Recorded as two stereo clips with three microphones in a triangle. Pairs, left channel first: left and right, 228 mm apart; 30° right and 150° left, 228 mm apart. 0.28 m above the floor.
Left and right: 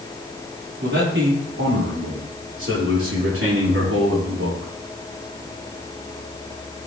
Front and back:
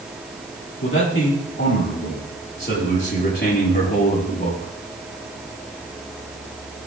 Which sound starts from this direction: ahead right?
A man speaking, at 0.8 s.